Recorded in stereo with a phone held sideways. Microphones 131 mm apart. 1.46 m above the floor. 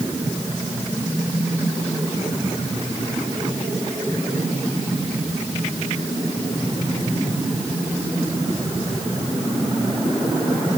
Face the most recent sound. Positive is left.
No sound to turn to.